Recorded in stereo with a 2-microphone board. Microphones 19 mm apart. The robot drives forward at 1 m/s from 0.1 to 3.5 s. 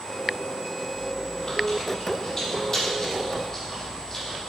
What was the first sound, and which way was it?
Chewing, 10° left (ahead or behind).